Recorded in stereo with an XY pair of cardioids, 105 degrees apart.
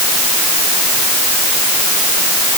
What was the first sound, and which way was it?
Only background noise.